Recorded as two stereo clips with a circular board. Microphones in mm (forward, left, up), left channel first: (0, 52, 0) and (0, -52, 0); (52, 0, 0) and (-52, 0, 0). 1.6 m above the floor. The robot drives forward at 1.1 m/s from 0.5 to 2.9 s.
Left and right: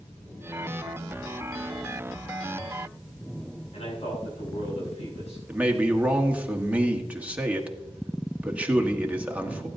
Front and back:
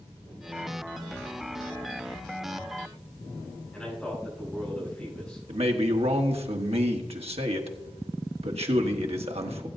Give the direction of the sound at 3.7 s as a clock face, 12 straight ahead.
9 o'clock.